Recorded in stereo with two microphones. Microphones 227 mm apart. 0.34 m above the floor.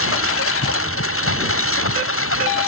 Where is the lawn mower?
65° left (ahead or behind).